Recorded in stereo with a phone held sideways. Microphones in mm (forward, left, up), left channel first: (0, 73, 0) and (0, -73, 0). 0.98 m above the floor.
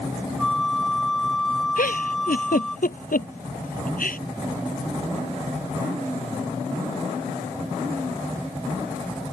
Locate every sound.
0.4 s a flute: 5° left (ahead or behind)
1.8 s a giggle: 75° left (ahead or behind)